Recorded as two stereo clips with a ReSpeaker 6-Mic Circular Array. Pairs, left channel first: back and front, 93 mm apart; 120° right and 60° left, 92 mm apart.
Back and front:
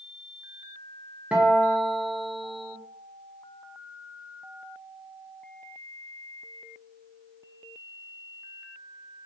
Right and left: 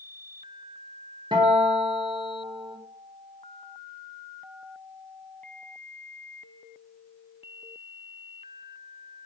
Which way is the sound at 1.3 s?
75° left.